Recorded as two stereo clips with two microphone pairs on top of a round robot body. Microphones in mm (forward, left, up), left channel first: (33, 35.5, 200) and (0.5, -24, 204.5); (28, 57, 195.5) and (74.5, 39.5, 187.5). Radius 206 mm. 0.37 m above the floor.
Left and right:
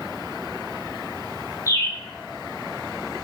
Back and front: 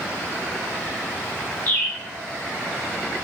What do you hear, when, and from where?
1.7 s a bird: 105° left, 3.5 m